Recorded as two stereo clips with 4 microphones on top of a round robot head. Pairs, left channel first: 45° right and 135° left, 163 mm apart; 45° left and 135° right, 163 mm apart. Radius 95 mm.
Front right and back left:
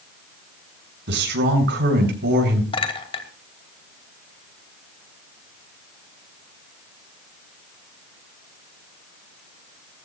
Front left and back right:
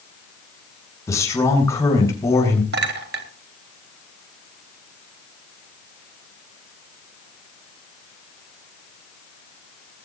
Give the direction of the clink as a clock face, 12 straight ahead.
4 o'clock.